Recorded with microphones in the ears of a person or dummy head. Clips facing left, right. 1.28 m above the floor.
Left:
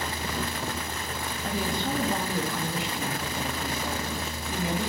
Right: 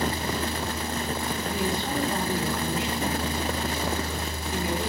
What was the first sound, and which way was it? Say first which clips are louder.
A woman speaking: left 1 dB; 70° left (ahead or behind).